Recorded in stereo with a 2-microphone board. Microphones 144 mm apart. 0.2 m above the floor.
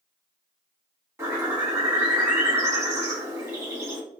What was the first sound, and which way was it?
A bird, 15° right (ahead or behind).